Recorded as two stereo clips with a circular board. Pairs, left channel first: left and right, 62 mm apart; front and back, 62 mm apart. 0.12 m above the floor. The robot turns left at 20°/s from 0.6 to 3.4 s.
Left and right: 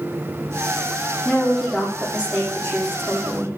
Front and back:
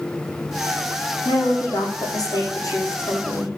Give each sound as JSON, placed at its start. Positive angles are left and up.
{"t": 1.2, "sound": "a woman speaking", "azimuth_deg": 0, "distance_m": 5.5}